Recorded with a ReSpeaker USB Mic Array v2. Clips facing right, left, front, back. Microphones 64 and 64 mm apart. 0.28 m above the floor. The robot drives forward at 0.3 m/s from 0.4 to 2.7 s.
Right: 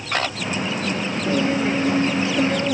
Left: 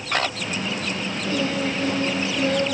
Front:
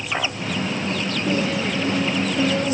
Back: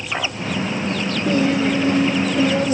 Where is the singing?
155° right, 5.5 m; by 2.7 s 160° right, 6 m.